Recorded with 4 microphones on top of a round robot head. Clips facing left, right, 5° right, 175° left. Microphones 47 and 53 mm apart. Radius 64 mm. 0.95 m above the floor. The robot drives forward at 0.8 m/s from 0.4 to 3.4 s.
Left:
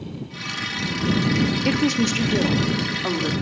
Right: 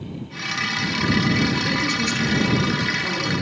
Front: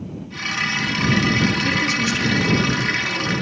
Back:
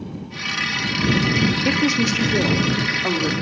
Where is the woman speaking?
125° left, 1.9 m; by 3.3 s 150° left, 3 m.